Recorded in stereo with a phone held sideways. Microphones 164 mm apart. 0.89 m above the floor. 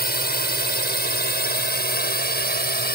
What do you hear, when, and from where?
0.0 s a drone: 75° left (ahead or behind)